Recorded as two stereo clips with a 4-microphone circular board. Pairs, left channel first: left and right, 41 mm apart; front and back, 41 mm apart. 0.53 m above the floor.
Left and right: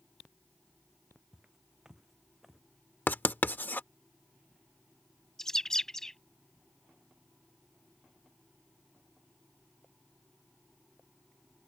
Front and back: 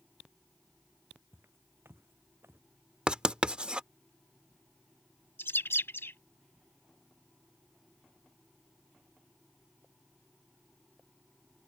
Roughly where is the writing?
Behind left.